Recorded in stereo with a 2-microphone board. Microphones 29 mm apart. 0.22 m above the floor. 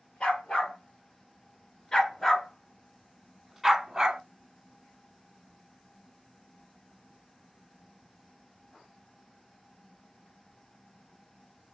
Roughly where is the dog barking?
Left.